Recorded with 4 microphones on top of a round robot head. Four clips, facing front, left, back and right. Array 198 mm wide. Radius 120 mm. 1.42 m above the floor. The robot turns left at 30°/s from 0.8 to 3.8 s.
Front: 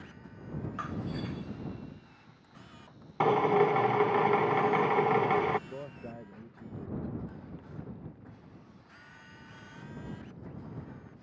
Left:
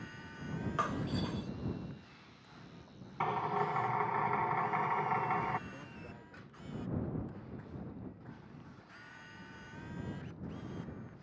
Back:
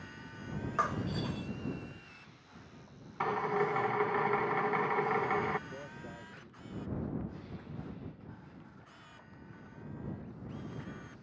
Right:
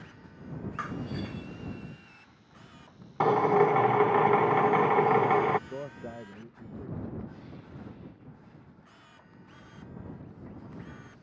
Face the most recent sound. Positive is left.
turn(degrees=-75)